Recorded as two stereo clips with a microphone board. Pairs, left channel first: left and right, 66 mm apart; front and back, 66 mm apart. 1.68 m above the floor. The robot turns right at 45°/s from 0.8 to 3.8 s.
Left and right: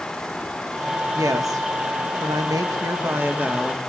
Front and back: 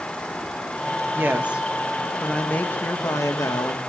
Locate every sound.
1.1 s a woman speaking: 125° right, 2.0 m; by 3.8 s 10° right, 2.0 m